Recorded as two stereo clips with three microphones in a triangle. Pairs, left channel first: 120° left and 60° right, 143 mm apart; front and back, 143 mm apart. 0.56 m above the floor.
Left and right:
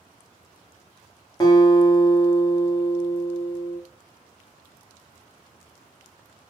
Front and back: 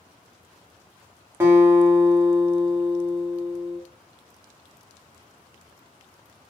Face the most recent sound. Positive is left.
turn(degrees=125)